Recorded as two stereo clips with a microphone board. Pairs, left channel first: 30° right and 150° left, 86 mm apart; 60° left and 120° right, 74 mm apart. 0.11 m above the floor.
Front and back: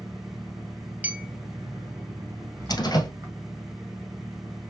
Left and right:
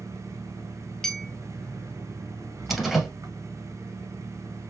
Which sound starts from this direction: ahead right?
A door slam, at 2.7 s.